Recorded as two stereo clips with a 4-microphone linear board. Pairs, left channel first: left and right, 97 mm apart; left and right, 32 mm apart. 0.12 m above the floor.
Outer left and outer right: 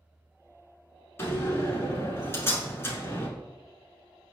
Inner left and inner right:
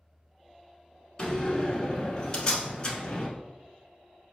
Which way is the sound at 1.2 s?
25° left (ahead or behind).